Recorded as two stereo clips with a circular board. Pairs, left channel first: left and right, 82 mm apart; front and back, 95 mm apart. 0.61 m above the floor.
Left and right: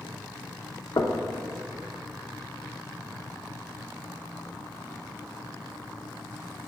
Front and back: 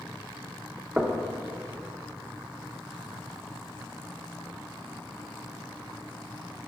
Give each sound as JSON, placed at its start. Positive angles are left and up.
{"t": 1.0, "sound": "knocking", "azimuth_deg": 105, "distance_m": 0.7}